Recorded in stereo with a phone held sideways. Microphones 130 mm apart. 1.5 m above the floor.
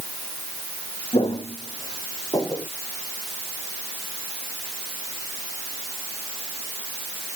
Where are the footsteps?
45° left (ahead or behind); by 2.7 s 25° left (ahead or behind).